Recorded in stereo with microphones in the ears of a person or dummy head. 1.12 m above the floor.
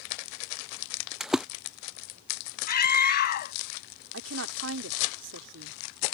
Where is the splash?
Centre (ahead or behind).